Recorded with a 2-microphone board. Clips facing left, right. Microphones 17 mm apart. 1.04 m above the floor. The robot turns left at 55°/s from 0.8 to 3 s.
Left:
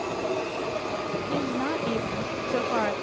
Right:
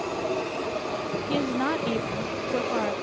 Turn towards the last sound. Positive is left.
turn(degrees=135)